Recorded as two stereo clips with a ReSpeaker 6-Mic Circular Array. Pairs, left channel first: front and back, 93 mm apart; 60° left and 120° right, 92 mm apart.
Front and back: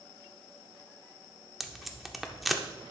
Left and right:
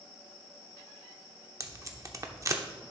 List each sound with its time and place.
1.6 s tape being pulled: 90° right, 0.6 m